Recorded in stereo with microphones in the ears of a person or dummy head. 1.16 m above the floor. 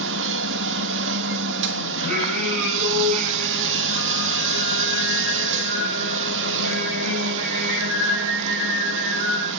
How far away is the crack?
No crack in this recording.